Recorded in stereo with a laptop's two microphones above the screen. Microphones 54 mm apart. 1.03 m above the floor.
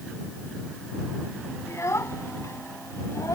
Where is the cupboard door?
I don't hear a cupboard door.